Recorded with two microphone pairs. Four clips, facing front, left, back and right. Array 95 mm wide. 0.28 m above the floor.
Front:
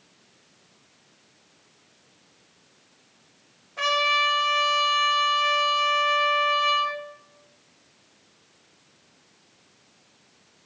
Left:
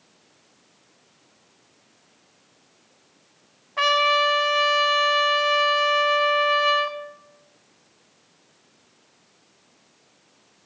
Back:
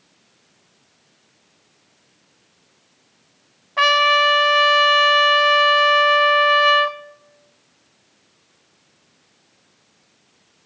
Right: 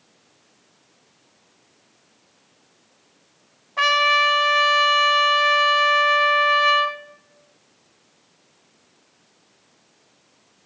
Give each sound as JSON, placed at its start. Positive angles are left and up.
{"t": 3.8, "sound": "a trumpet", "azimuth_deg": -170, "distance_m": 1.2}